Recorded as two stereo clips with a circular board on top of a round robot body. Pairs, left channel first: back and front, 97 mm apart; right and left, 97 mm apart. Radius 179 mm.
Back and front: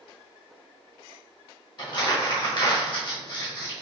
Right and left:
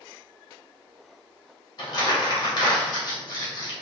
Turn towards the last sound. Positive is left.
turn(degrees=-140)